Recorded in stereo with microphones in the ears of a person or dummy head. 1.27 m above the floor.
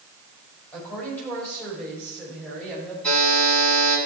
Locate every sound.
0.7 s a woman speaking: 10° left (ahead or behind), 5 m
3.0 s a buzzer: 10° left (ahead or behind), 6 m